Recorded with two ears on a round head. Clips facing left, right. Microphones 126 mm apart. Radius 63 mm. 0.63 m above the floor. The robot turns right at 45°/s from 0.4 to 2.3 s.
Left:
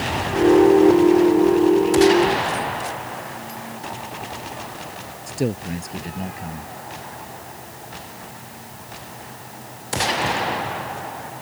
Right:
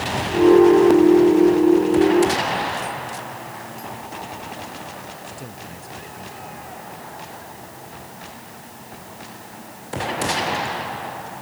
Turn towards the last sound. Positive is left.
turn(degrees=80)